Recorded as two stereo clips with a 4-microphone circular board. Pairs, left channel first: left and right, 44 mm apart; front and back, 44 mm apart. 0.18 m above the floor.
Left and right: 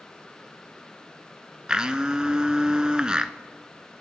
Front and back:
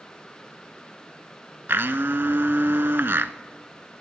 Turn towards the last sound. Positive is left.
turn(degrees=-155)